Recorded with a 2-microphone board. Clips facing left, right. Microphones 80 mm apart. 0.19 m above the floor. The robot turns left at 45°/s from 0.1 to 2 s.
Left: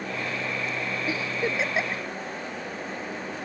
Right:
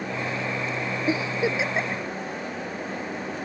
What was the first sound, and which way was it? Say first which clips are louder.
A giggle: right 5 dB; 25° right (ahead or behind).